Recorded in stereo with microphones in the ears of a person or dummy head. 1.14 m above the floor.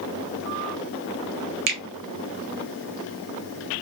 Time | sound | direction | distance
1.7 | a finger snap | 55° right (ahead or behind) | 0.8 m